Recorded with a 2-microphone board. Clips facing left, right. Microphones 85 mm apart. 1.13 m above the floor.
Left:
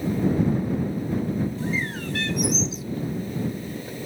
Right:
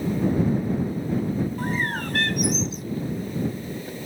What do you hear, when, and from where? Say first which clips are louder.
1.6 s a bird: right 2 dB; 50° right (ahead or behind)